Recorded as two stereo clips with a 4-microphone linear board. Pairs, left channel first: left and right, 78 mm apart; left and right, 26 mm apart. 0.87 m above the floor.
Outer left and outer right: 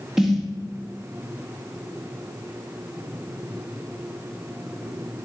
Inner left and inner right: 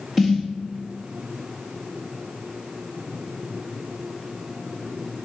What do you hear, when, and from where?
0.2 s a snare drum: 5° right (ahead or behind), 1.0 m